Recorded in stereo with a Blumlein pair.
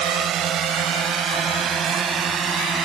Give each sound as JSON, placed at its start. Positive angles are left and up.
{"t": 0.0, "sound": "a drone", "azimuth_deg": -30}